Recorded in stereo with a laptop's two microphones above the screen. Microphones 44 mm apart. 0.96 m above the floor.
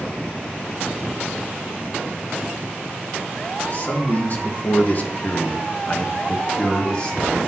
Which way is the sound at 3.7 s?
40° left (ahead or behind).